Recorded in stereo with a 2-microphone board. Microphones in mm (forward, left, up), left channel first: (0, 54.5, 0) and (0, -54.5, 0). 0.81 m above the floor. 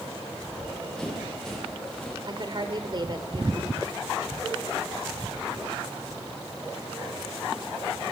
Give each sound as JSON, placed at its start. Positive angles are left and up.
{"t": 0.4, "sound": "running footsteps", "side_deg": 5, "distance_m": 8.0}
{"t": 2.2, "sound": "a woman speaking", "side_deg": -45, "distance_m": 2.5}